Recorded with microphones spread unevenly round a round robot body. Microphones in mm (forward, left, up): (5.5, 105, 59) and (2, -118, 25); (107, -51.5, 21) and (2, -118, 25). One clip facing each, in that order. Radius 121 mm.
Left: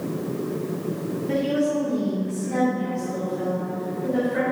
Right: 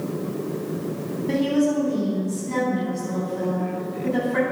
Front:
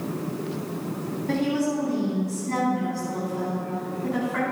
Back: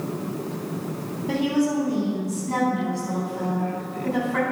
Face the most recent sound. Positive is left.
turn(degrees=-100)